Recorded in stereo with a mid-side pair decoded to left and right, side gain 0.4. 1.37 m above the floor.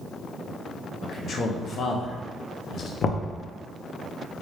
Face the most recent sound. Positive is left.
turn(degrees=55)